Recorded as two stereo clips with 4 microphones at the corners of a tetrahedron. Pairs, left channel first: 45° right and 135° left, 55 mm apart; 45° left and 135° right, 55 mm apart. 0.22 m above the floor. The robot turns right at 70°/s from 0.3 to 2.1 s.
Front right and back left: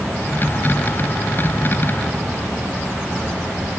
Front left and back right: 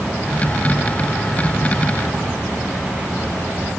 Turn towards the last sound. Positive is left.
No sound to turn to.